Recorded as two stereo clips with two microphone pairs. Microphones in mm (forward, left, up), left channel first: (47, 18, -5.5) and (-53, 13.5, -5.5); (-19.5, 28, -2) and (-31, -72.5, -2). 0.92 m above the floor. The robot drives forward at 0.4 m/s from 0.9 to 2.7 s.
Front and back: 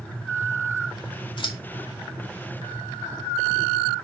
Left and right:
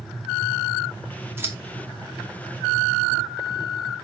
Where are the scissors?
30° right, 2 m.